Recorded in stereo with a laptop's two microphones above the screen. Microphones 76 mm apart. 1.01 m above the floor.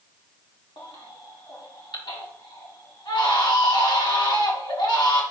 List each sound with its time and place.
0.8 s a baby crying: 80° left, 1.6 m